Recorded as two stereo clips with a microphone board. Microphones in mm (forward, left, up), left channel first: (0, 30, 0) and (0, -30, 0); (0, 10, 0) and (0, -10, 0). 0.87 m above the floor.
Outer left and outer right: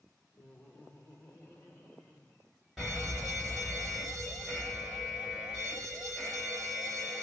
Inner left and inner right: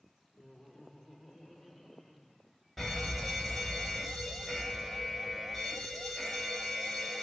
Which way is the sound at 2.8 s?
5° left (ahead or behind).